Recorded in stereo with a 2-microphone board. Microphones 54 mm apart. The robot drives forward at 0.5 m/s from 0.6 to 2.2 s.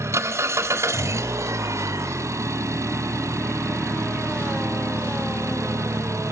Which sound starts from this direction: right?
An engine running, at 0.0 s.